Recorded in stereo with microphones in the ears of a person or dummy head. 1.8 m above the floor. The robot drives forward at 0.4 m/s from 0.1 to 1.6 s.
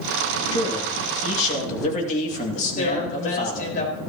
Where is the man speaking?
35° left (ahead or behind), 3 m; by 3.8 s 40° left (ahead or behind), 2.5 m.